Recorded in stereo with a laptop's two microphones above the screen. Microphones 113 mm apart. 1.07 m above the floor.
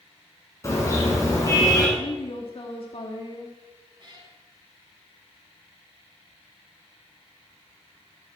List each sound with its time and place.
0.6 s a car horn: 30° left (ahead or behind), 5.5 m; by 1.9 s 35° left (ahead or behind), 6 m
2.0 s a woman speaking: 55° left (ahead or behind), 1.8 m
4.0 s a cat meowing: 45° right (ahead or behind), 7.5 m